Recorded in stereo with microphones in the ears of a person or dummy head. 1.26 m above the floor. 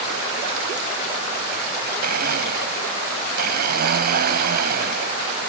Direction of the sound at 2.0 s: 55° right (ahead or behind).